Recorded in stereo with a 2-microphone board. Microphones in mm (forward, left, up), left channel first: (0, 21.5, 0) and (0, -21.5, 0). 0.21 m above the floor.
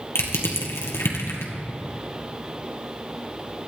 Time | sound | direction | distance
0.1 | crushing | 80° left | 2.5 m